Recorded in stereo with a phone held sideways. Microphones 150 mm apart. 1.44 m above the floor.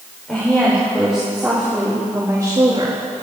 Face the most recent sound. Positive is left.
turn(degrees=-40)  # may be behind; listen again after turning